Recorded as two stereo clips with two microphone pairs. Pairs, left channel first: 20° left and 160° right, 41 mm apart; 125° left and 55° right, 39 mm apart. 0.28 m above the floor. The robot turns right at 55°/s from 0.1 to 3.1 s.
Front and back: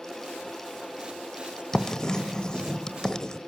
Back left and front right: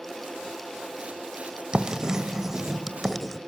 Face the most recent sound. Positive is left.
turn(degrees=50)